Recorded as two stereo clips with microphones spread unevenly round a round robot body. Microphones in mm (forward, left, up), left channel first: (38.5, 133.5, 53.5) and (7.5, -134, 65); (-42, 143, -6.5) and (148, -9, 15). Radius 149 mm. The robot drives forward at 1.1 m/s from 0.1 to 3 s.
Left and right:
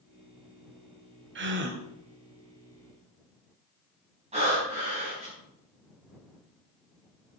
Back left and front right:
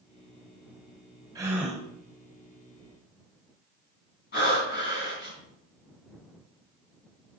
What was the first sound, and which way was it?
A gasp, 115° right.